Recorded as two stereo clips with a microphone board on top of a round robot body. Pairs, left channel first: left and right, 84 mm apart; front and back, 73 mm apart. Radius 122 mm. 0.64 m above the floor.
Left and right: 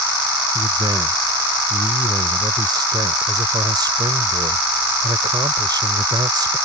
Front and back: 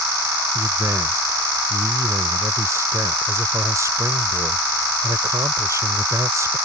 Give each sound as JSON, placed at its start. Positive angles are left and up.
{"t": 0.6, "sound": "a man speaking", "azimuth_deg": -130}